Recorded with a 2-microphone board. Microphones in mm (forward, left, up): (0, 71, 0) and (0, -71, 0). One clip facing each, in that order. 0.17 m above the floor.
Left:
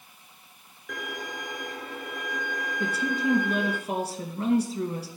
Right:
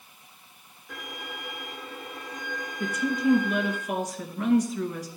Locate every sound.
0.9 s a violin: 80° left, 2.0 m
2.8 s a woman speaking: 30° left (ahead or behind), 2 m